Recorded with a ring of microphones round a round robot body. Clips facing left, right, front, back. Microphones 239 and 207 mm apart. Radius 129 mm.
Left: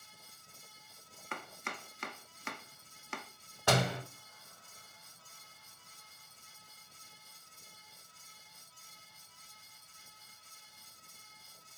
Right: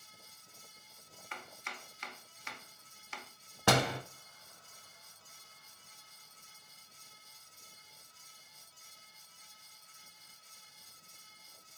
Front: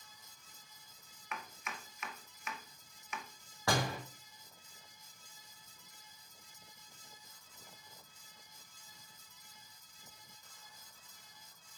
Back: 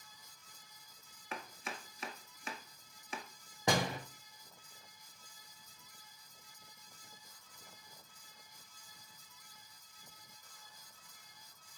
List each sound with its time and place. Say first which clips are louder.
1.3 s chopping: left 6 dB, back 2 dB; 125° left, 0.9 m
3.7 s a door slam: right 1 dB, back 1 dB; 105° right, 1.4 m